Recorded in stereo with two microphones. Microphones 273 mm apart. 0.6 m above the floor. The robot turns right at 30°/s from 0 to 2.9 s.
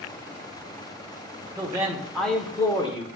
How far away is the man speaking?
About 1.5 m.